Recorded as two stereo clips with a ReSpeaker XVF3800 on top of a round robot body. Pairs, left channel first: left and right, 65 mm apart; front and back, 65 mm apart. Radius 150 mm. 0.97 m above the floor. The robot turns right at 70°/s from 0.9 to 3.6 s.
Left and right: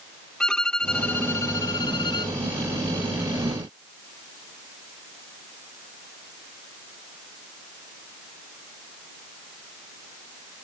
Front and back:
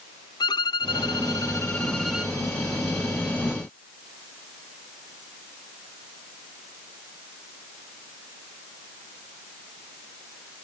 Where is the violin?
10° left; by 2.4 s 110° left.